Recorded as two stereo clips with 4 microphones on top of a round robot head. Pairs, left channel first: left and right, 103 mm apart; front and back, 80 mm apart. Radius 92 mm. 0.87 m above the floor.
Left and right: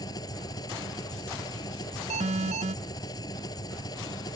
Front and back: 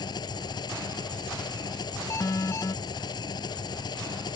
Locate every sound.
0.0 s an engine running: 30° left
2.1 s an alarm: 65° right